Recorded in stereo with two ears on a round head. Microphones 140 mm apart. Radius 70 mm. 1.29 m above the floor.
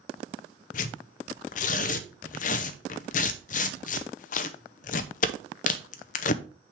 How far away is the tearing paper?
About 0.6 m.